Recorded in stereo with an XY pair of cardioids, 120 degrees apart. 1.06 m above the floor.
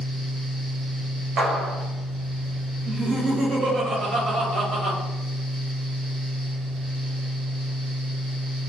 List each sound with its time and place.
0.0 s a fan: 65° right, 1.0 m
1.4 s a clap: 55° right, 0.7 m
2.9 s laughter: 70° right, 0.9 m